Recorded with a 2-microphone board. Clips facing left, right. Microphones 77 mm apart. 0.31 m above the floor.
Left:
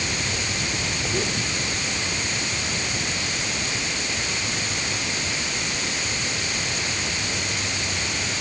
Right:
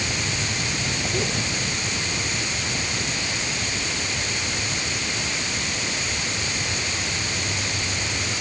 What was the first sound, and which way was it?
Only background noise.